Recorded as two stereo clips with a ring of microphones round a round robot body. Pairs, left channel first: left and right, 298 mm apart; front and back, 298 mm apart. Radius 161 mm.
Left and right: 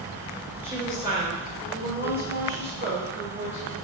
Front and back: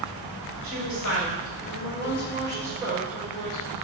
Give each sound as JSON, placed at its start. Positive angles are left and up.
{"t": 0.6, "sound": "a woman speaking", "azimuth_deg": -10, "distance_m": 1.7}